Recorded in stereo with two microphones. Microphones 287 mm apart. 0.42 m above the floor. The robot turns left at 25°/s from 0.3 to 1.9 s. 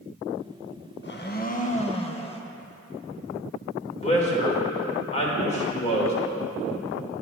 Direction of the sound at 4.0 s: 20° left (ahead or behind).